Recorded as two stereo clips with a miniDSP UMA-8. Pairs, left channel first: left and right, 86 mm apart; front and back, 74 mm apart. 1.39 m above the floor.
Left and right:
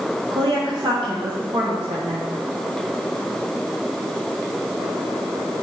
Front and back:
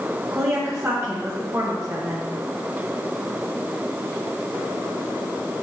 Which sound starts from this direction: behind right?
A woman speaking, at 0.3 s.